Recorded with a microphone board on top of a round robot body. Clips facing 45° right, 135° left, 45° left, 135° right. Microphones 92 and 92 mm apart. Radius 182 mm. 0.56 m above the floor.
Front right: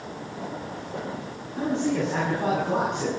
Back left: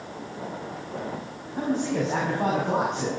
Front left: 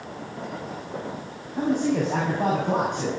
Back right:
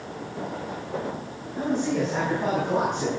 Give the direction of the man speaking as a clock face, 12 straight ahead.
9 o'clock.